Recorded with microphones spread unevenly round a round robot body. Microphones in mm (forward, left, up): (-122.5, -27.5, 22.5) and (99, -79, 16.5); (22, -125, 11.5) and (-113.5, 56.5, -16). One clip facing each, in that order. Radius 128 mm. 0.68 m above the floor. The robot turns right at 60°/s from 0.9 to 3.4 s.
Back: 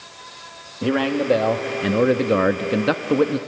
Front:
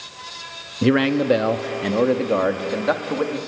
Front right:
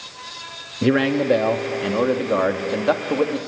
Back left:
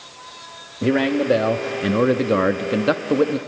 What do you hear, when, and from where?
0.8 s a man speaking: 30° left, 0.7 m; by 3.4 s 175° left, 0.7 m